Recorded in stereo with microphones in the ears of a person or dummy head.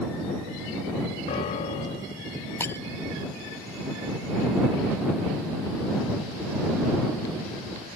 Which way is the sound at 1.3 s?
35° left (ahead or behind).